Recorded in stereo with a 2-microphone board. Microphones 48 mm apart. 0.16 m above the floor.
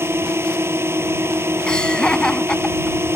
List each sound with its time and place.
0.0 s a drone: 60° right (ahead or behind)
1.7 s laughter: 20° left (ahead or behind)